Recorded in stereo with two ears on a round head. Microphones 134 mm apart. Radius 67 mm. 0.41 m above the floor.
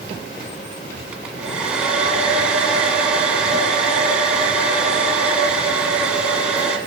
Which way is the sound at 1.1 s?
10° right (ahead or behind).